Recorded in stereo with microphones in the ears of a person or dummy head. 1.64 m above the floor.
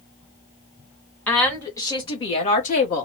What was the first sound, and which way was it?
A woman speaking, 10° left (ahead or behind).